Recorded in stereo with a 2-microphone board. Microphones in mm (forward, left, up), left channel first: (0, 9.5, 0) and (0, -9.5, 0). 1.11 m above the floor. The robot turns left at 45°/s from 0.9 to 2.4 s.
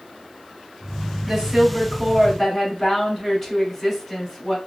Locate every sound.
1.2 s a woman speaking: 140° right, 3 m; by 4.6 s 170° left, 3 m